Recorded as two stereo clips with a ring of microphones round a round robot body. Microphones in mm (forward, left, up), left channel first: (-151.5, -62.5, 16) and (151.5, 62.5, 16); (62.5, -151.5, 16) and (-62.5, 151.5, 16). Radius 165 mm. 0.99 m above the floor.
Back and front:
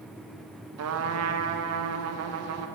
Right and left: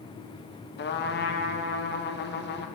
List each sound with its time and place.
0.8 s a trumpet: 15° right, 0.7 m